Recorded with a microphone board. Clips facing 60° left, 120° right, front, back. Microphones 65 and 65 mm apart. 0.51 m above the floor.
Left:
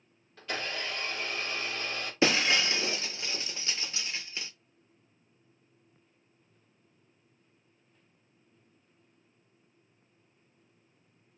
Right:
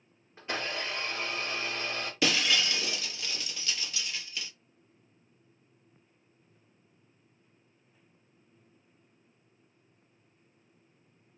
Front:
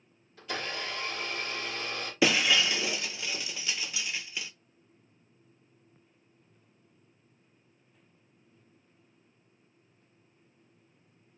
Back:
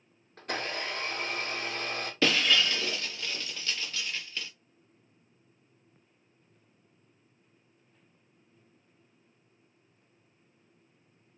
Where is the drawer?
I don't hear a drawer.